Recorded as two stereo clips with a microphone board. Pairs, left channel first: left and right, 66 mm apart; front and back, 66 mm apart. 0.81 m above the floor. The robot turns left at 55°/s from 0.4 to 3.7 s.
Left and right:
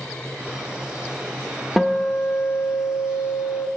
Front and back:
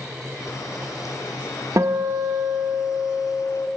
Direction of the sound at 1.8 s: 175° right.